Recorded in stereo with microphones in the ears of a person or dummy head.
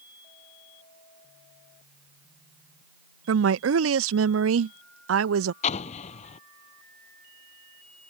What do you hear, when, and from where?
3.3 s a woman speaking: 80° right
5.6 s an explosion: 40° left (ahead or behind)